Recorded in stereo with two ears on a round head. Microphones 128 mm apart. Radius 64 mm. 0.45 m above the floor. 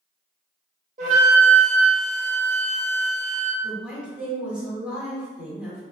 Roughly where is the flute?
Right.